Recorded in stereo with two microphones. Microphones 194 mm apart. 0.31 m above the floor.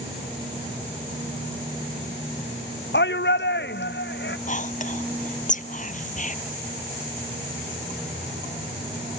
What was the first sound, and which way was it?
A shout, 70° left (ahead or behind).